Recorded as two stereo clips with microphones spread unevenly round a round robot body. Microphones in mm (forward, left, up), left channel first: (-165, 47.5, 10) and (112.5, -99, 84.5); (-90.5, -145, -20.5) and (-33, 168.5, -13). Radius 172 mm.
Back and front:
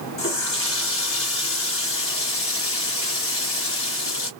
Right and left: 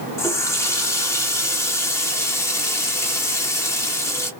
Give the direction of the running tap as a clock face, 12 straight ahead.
6 o'clock.